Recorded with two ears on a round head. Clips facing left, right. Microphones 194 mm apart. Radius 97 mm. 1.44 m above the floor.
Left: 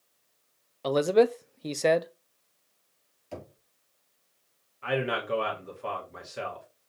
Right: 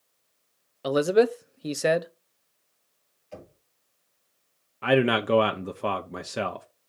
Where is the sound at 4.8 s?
65° right (ahead or behind), 0.7 m.